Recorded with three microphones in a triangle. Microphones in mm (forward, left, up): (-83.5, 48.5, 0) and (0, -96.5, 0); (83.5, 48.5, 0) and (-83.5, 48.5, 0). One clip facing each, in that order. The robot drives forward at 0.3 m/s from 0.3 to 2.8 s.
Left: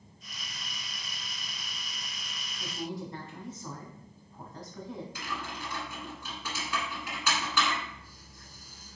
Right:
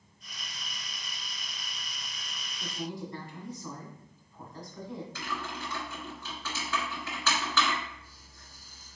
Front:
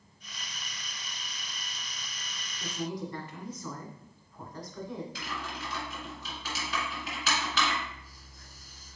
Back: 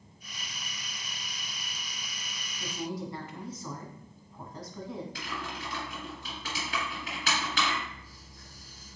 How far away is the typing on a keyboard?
About 1.7 m.